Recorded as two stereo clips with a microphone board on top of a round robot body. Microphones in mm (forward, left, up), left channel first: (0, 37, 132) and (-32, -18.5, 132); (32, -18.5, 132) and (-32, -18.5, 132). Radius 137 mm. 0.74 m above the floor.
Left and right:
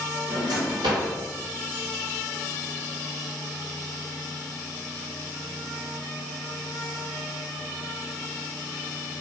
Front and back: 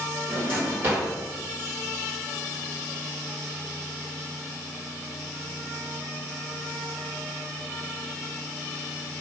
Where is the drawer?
120° right, 1.3 m.